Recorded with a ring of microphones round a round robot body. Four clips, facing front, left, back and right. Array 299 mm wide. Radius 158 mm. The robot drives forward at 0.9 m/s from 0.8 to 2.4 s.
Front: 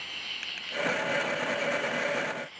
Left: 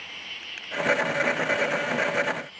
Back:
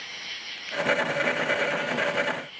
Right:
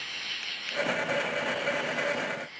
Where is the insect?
95° right, 2.5 m; by 2.6 s 125° right, 3 m.